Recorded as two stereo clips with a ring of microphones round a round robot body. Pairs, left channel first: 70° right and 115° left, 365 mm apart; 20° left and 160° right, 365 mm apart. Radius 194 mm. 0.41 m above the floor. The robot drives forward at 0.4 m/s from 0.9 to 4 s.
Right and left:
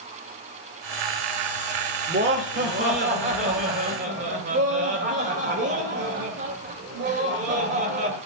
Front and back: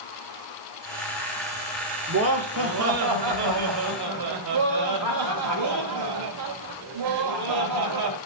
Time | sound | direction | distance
2.1 | laughter | 165° left | 1.5 m